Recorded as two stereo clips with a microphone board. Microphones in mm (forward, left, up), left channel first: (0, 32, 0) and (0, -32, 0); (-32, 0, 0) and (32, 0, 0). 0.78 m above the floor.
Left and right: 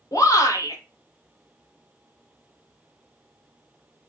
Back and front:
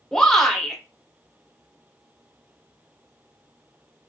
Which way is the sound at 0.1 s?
95° left.